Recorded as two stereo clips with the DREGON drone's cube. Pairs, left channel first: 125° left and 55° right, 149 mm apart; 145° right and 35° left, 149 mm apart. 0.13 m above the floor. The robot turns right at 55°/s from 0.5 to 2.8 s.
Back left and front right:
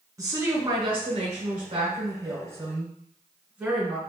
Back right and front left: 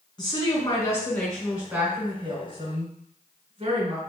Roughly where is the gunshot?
No gunshot in this recording.